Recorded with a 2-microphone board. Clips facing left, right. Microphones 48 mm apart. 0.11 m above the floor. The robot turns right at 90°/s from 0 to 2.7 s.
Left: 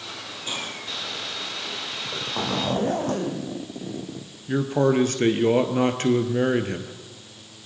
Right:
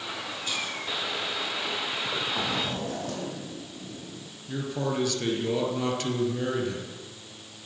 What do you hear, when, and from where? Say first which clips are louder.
0.5 s a hiss: left 1 dB; 25° left, 3 m; by 0.8 s 60° left, 3 m
1.9 s a zipper: even; 25° right, 2.5 m; by 4.3 s 45° left, 2.5 m
4.5 s a man speaking: left 9 dB; 40° left (ahead or behind), 2 m